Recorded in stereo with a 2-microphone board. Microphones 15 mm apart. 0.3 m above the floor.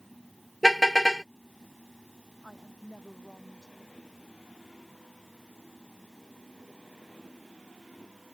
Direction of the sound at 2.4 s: 30° left (ahead or behind).